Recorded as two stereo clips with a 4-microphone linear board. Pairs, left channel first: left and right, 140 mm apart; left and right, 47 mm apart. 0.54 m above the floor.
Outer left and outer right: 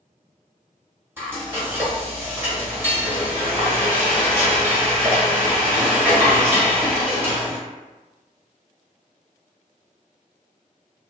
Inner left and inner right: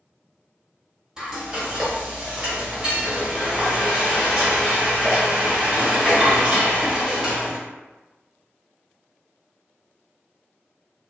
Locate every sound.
1.2 s frying: 15° right (ahead or behind), 1.0 m